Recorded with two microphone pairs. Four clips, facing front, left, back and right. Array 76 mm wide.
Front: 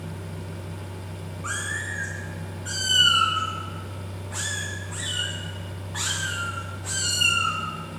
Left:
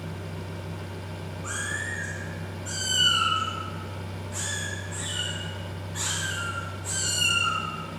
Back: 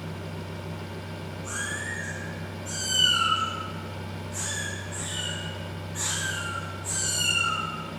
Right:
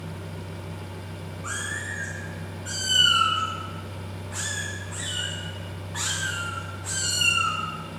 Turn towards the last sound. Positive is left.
turn(degrees=-60)